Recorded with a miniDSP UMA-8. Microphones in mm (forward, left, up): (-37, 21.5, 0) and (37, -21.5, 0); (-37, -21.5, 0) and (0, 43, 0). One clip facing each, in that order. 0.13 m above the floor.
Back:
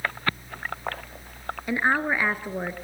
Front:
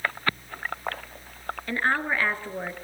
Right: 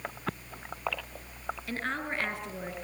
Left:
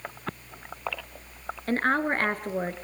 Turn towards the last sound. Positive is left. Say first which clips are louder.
# back 2 dB, left 11 dB
turn(degrees=80)